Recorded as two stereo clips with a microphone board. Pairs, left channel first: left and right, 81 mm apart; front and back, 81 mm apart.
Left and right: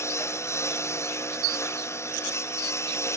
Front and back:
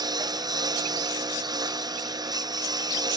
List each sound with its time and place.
0.0 s a lawn mower: 145° left